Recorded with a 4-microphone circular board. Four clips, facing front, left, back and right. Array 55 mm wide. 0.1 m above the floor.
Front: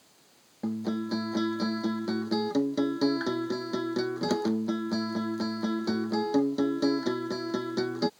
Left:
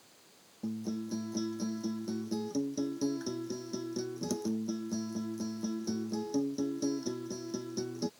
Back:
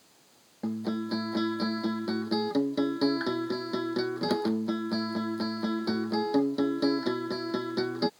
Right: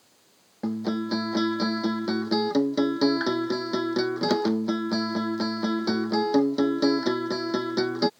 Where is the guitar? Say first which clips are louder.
Right 9 dB, front 1 dB; 95° right.